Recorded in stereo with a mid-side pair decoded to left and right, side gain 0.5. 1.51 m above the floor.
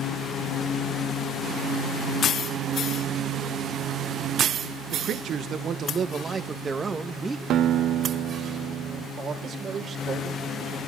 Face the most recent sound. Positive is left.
turn(degrees=-45)